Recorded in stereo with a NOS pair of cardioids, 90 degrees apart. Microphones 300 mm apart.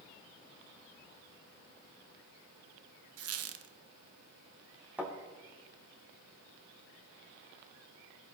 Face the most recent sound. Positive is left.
turn(degrees=-5)